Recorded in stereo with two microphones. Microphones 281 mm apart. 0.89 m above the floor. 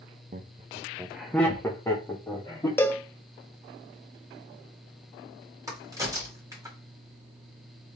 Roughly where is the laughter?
Right.